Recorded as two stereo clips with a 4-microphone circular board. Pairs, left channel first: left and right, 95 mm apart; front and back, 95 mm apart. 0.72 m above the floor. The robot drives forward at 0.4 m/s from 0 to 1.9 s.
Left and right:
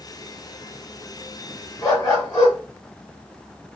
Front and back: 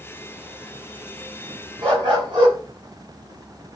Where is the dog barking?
145° left, 1.9 m.